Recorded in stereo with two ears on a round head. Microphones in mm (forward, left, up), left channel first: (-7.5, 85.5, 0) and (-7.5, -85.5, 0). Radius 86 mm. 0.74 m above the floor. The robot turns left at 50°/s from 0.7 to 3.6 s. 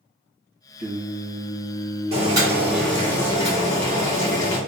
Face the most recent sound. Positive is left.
turn(degrees=140)